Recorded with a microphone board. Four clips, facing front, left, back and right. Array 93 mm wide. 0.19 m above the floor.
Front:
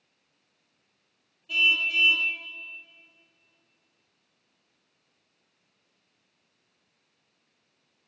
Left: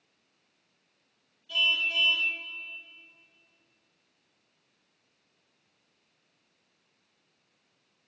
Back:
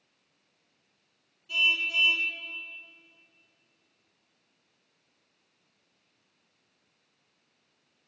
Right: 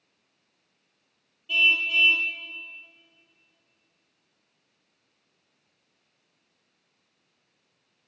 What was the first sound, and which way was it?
A car horn, 55° right.